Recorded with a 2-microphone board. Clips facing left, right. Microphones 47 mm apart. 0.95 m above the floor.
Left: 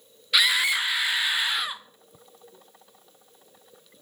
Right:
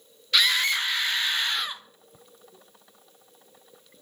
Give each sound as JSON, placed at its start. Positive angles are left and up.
{"t": 0.3, "sound": "a scream", "side_deg": 10, "distance_m": 0.9}